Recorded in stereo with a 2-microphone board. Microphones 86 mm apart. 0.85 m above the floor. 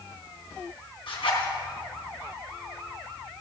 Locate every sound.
1.1 s a zipper: 85° left, 3.5 m